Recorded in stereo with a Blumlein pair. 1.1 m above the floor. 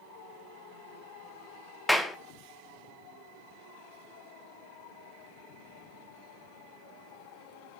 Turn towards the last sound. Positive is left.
turn(degrees=5)